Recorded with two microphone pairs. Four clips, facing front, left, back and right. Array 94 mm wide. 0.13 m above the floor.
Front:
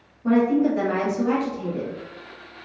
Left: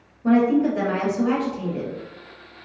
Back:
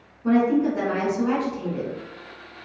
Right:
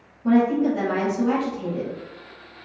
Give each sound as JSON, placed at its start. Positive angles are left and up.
{"t": 0.2, "sound": "a woman speaking", "azimuth_deg": 95, "distance_m": 1.2}